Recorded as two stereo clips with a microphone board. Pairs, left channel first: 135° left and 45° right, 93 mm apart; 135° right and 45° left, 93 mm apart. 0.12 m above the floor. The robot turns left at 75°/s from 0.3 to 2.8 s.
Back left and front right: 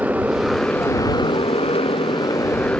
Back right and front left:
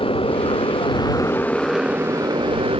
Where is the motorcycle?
120° right; by 2.8 s 55° left.